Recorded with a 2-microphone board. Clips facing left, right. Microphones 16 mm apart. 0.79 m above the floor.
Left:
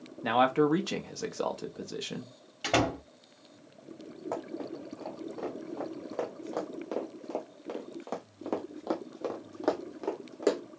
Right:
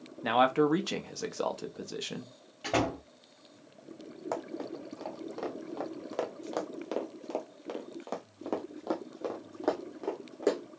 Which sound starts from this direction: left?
A door slam, at 2.6 s.